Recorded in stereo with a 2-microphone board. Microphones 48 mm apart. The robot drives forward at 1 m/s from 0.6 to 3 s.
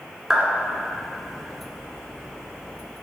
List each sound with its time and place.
0.3 s a clap: 10° right (ahead or behind), 1.4 m